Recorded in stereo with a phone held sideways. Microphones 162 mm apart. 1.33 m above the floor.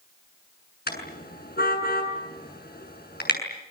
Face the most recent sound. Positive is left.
turn(degrees=80)